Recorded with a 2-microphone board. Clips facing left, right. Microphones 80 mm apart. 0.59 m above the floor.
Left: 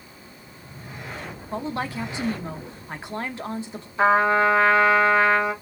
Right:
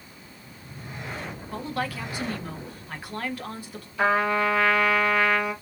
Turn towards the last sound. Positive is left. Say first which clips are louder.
# left 5 dB
turn(degrees=30)  # may be behind; listen again after turning